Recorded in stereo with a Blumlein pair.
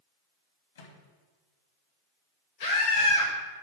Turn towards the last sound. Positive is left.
turn(degrees=70)